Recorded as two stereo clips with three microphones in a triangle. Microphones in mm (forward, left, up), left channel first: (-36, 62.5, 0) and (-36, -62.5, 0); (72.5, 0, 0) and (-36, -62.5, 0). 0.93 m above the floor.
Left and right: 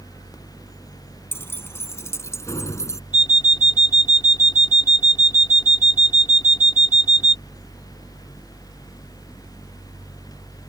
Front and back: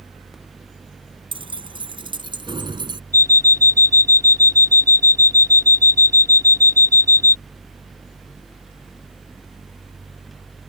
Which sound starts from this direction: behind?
Keys jangling, at 1.3 s.